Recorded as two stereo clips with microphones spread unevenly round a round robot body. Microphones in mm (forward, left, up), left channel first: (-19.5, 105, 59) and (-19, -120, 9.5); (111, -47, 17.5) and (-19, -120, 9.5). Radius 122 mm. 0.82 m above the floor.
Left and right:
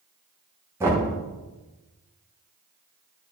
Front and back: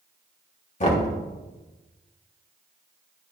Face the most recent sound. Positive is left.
turn(degrees=-15)